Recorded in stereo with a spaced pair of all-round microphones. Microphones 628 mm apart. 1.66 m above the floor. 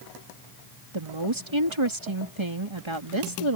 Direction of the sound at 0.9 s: 45° right (ahead or behind).